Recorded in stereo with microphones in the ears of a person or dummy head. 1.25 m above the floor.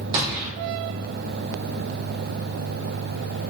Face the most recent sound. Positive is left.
turn(degrees=-30)  # may be behind; listen again after turning